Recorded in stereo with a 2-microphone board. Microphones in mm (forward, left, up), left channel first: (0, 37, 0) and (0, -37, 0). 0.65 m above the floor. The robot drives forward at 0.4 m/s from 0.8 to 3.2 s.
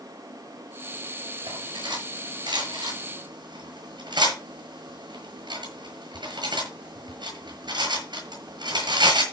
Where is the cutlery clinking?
85° right, 7.5 m; by 9.2 s 80° right, 7.5 m.